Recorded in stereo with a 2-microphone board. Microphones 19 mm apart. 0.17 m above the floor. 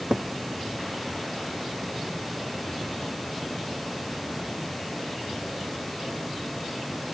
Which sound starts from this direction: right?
A cupboard door, at 0.1 s.